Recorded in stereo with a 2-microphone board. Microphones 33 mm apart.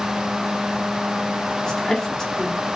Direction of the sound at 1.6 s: 15° left (ahead or behind).